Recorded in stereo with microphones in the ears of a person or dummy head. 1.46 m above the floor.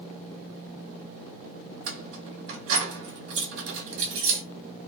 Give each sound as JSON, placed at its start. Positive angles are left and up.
{"t": 1.9, "sound": "keys jangling", "side_deg": -65, "distance_m": 1.4}